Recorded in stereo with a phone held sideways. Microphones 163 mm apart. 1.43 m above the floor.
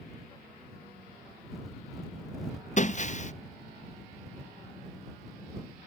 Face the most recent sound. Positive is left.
turn(degrees=45)  # may be behind; listen again after turning